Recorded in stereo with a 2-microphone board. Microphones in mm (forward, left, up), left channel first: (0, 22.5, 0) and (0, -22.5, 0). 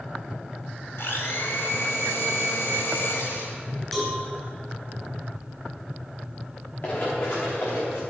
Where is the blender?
75° left (ahead or behind), 2 m.